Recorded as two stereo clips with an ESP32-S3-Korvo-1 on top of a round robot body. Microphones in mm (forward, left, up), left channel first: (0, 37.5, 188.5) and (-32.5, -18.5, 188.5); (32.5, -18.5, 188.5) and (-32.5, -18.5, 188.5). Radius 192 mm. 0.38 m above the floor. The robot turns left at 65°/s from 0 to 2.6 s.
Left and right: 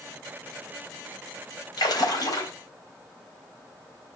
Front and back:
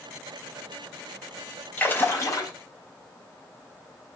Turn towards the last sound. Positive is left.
turn(degrees=15)